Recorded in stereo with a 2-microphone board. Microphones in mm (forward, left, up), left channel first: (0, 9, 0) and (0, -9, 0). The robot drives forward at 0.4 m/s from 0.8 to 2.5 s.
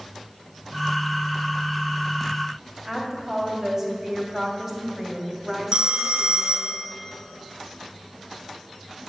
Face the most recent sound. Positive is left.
turn(degrees=-60)  # may be behind; listen again after turning